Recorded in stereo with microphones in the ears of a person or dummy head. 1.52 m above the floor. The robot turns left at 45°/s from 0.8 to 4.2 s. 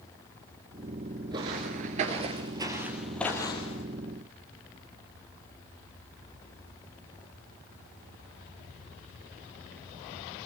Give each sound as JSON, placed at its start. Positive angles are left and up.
{"t": 1.3, "sound": "footsteps", "side_deg": -15, "distance_m": 1.5}